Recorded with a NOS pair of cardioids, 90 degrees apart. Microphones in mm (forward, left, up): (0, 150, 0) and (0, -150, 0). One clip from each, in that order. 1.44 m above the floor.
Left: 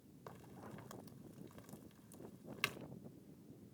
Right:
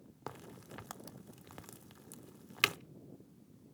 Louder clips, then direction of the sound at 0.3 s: Right 6 dB; 60° right.